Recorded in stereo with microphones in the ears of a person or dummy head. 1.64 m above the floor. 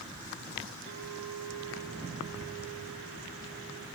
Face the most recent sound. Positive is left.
turn(degrees=-60)  # may be behind; listen again after turning